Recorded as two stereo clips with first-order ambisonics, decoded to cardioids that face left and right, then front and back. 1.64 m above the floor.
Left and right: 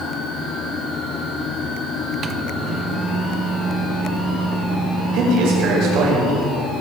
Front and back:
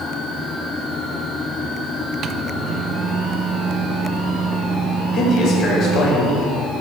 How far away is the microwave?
About 1.0 m.